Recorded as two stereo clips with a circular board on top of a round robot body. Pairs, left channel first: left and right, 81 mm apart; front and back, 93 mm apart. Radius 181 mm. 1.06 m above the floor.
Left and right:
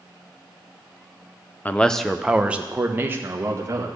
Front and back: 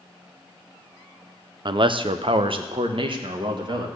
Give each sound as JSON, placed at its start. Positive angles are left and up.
{"t": 1.6, "sound": "a man speaking", "azimuth_deg": 155, "distance_m": 0.9}